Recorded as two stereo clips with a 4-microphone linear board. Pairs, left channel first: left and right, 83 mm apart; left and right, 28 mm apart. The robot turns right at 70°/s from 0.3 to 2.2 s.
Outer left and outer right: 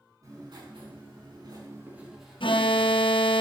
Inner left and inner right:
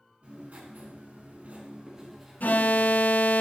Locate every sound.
0.2 s writing: 140° right, 6 m; by 3.4 s 5° right, 6 m
2.4 s an alarm: 75° left (ahead or behind), 0.8 m